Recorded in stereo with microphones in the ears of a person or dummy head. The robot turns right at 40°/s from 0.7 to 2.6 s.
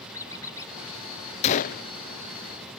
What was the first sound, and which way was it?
A squeak, 20° left (ahead or behind).